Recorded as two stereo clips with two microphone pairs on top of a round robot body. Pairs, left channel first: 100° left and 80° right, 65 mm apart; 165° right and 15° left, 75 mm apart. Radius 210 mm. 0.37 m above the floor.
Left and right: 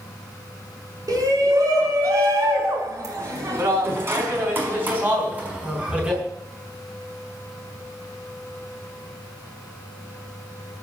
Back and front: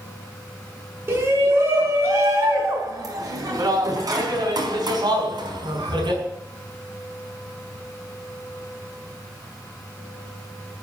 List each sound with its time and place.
1.1 s a shout: 40° right, 6 m; by 6.2 s 5° right, 4.5 m